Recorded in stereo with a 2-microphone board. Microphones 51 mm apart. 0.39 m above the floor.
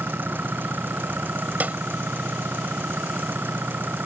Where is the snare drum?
35° right (ahead or behind).